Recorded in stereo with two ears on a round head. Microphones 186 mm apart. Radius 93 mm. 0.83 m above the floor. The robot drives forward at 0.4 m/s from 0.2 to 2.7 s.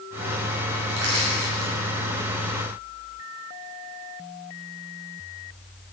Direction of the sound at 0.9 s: 60° right (ahead or behind).